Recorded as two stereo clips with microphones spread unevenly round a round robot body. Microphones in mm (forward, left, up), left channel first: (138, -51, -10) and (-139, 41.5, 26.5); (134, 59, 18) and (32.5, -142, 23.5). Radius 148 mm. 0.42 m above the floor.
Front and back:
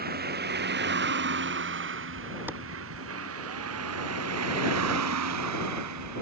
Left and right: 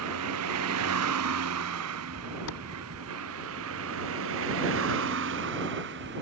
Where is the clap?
80° left.